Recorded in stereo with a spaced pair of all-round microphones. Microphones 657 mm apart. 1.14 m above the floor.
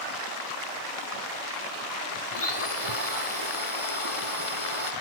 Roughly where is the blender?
Left.